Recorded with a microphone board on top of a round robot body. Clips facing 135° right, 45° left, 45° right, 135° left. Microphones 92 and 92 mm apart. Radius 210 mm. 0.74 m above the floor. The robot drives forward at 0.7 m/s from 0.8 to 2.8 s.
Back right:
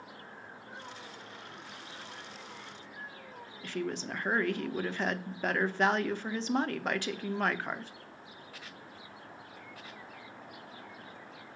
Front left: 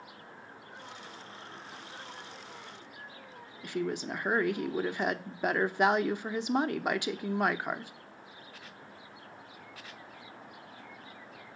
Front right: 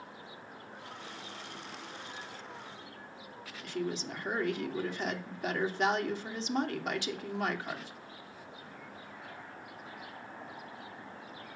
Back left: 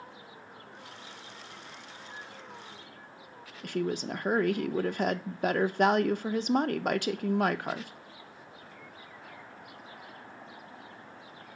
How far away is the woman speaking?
About 0.9 m.